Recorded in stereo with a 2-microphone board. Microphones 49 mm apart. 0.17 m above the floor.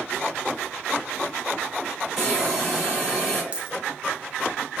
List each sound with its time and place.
2.2 s a hiss: 10° left (ahead or behind), 1.7 m
3.5 s a dropped coin: 20° right (ahead or behind), 0.6 m